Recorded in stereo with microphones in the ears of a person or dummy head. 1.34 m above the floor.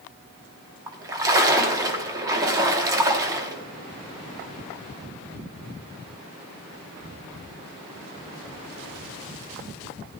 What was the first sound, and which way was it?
A splash, 20° right (ahead or behind).